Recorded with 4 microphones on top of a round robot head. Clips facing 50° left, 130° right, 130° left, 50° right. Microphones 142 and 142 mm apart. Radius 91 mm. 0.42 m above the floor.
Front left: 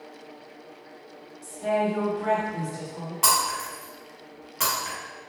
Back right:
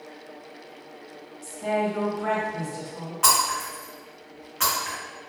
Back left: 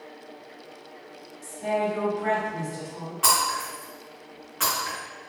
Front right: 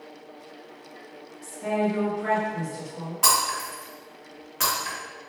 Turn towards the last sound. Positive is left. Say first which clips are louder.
# back right 2 dB, back left 1 dB
turn(degrees=-5)